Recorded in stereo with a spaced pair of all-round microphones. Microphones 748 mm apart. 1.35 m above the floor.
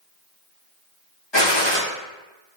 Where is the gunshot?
35° left (ahead or behind), 1.2 m.